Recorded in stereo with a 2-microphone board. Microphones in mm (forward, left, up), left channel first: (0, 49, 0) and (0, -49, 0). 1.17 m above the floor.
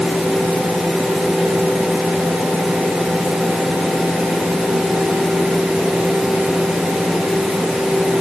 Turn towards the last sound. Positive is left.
No sound to turn to.